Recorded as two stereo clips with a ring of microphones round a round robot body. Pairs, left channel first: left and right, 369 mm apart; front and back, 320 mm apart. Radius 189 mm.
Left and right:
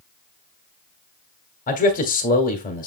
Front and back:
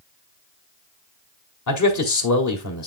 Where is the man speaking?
25° left, 2 m.